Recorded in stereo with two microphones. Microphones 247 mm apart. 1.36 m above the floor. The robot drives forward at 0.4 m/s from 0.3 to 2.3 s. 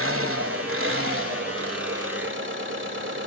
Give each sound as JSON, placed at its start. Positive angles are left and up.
{"t": 0.0, "sound": "an engine running", "side_deg": -65, "distance_m": 2.0}